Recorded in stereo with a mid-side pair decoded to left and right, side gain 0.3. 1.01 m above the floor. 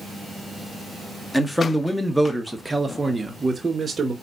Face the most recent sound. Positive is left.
turn(degrees=-55)